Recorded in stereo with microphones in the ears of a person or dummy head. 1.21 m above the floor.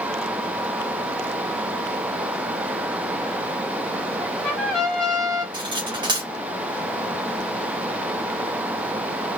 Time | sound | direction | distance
4.2 | a trumpet | 15° left (ahead or behind) | 1.9 m
5.5 | cutlery clinking | 15° right (ahead or behind) | 1.2 m